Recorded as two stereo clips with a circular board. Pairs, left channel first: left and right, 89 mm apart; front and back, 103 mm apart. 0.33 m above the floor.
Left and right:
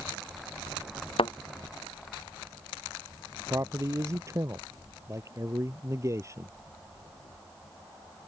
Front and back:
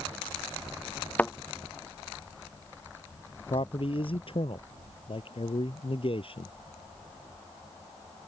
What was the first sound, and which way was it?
A thud, 75° left.